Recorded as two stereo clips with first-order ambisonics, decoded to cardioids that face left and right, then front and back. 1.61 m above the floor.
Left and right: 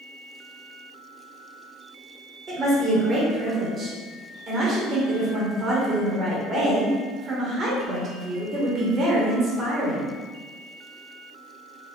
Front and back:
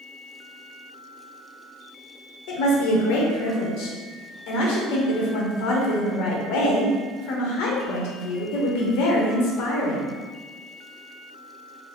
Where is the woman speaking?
20° right, 0.9 m.